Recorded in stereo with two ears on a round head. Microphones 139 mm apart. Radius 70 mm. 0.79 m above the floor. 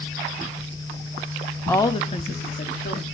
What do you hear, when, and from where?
1.7 s a woman speaking: 10° left (ahead or behind), 0.7 m; by 3.0 s 60° left (ahead or behind), 1.9 m